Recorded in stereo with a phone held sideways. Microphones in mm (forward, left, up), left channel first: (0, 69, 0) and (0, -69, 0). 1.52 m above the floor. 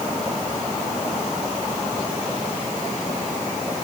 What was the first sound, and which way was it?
Only background noise.